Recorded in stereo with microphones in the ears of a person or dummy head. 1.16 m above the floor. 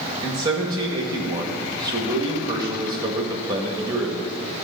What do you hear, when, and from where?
0.2 s a man speaking: 20° right (ahead or behind), 1.5 m